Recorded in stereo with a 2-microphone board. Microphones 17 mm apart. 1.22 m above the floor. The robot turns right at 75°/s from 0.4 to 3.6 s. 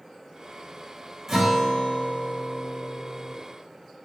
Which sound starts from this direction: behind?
A guitar, at 1.3 s.